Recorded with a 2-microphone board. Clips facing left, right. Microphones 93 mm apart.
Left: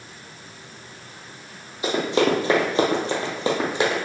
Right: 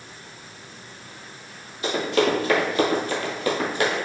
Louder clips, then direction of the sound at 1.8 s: Left 1 dB; 20° left (ahead or behind).